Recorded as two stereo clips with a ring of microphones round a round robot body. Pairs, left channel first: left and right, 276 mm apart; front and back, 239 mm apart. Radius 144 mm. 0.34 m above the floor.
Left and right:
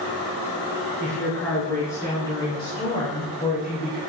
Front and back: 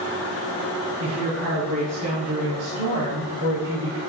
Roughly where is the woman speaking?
Behind.